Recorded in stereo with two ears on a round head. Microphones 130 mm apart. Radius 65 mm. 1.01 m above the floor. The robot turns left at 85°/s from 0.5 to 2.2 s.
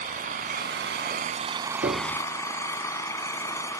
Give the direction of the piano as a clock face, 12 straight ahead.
4 o'clock.